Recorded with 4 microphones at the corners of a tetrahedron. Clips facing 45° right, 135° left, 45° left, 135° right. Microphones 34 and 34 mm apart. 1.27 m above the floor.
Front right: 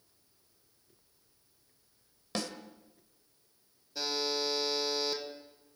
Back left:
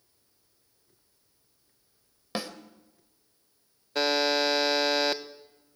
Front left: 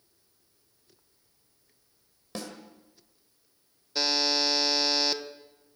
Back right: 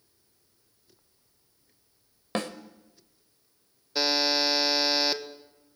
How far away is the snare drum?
About 1.7 m.